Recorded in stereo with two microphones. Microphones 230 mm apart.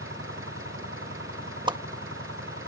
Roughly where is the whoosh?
Centre.